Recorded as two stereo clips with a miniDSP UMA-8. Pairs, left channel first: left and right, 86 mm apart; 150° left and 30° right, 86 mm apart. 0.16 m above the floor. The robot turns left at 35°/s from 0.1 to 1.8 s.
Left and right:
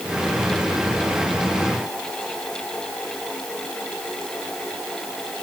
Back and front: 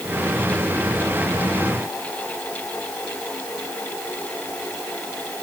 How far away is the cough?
I don't hear a cough.